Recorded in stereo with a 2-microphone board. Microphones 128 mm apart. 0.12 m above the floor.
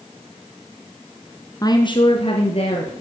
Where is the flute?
No flute in this recording.